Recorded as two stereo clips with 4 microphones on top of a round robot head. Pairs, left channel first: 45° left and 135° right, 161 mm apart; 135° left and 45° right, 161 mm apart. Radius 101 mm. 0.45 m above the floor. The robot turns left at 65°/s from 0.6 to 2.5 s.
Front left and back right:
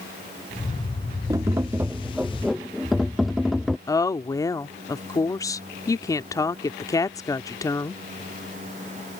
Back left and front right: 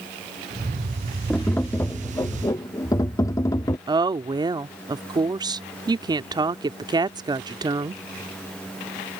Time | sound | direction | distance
1.3 | tapping | 145° right | ?
3.9 | a woman speaking | 5° right | ?